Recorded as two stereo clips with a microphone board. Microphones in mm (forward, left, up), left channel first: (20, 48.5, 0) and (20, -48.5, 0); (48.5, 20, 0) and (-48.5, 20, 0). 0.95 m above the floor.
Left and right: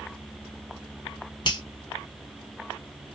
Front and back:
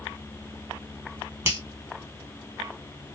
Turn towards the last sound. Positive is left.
turn(degrees=120)